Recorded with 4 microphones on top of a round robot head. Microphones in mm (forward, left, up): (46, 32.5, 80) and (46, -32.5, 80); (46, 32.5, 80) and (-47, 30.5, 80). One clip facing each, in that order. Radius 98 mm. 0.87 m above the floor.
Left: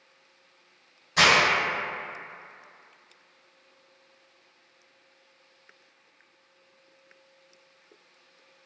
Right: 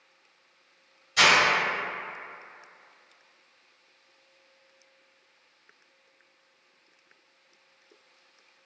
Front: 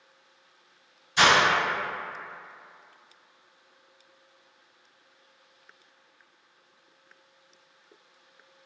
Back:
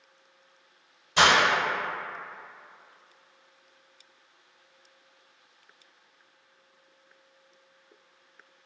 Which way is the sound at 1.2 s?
155° left.